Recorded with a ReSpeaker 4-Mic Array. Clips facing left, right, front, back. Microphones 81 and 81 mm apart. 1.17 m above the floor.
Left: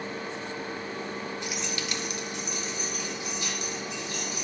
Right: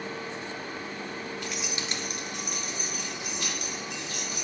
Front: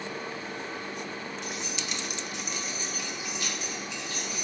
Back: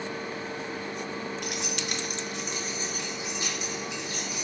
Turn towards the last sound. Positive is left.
turn(degrees=-110)